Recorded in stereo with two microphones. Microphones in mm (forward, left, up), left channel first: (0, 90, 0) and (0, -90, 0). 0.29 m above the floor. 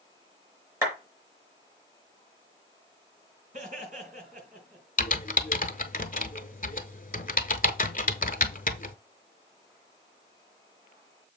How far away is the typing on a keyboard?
About 0.7 m.